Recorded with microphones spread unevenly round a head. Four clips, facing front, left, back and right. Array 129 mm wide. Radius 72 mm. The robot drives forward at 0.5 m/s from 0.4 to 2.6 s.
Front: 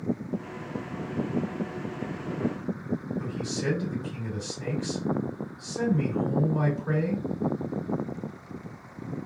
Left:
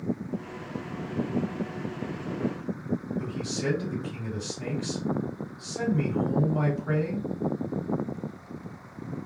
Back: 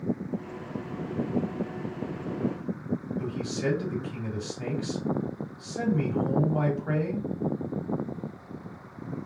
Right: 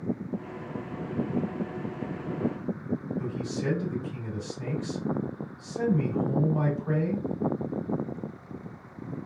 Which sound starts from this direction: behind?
A man speaking, at 3.2 s.